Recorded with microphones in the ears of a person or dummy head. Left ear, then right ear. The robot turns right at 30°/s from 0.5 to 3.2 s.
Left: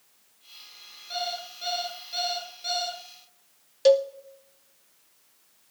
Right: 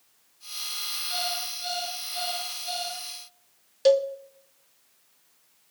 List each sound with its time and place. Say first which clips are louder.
1.1 s an alarm clock: left 2 dB; straight ahead, 6.5 m; by 3.0 s 55° left, 6.5 m
3.9 s a cowbell: left 1 dB; 5° left (ahead or behind), 0.6 m